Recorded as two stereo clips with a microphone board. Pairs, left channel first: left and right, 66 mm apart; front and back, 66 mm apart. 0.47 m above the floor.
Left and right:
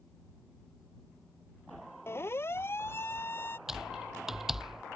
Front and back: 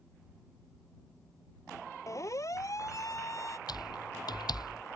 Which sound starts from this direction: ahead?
Typing on a keyboard, at 3.7 s.